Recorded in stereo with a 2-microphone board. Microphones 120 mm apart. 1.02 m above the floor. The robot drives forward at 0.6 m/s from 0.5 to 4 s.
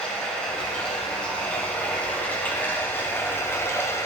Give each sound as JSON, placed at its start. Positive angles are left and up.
{"t": 0.0, "sound": "running water", "side_deg": 10, "distance_m": 2.5}